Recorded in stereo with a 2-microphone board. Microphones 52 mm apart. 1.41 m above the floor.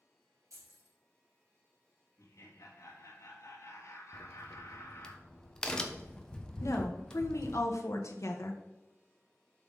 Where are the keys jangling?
70° right (ahead or behind), 3.5 m.